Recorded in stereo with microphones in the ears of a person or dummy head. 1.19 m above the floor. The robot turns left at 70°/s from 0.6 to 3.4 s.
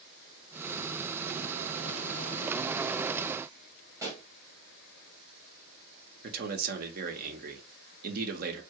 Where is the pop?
15° right (ahead or behind), 1.0 m.